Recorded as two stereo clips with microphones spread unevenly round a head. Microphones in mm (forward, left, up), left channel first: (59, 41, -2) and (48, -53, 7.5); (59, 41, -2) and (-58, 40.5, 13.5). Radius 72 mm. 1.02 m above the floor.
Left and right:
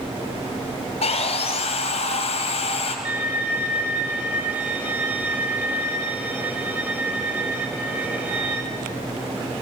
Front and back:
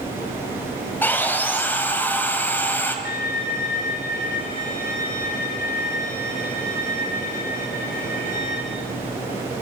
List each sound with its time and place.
1.0 s sawing: 75° left, 4.5 m
3.0 s a violin: 20° right, 6 m